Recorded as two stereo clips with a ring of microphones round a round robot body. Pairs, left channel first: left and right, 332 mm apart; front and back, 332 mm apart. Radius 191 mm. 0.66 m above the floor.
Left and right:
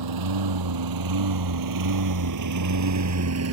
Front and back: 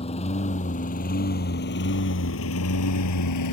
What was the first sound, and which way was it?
A lawn mower, 75° right.